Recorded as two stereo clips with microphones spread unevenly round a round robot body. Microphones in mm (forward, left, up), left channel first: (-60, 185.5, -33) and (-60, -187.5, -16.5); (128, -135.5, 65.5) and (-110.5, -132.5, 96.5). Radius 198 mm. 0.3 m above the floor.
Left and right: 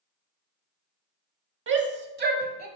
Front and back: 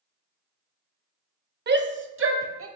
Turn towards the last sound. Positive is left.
turn(degrees=-155)